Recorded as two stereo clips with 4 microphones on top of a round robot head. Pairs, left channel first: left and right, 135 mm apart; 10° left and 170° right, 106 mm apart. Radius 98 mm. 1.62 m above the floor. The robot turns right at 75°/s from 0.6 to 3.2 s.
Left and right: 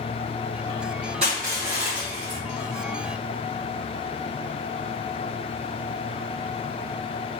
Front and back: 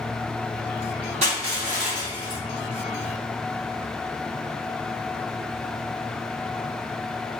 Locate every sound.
1.2 s crushing: 140° right, 1.2 m; by 2.4 s 50° right, 1.2 m